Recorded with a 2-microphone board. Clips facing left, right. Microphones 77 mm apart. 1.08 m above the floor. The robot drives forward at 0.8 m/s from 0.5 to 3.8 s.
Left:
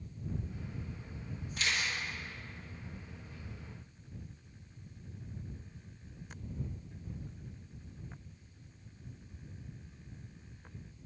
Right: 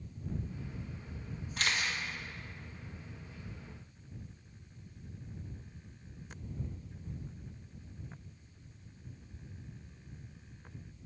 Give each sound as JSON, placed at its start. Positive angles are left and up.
{"t": 1.6, "sound": "a camera shutter", "side_deg": -55, "distance_m": 1.3}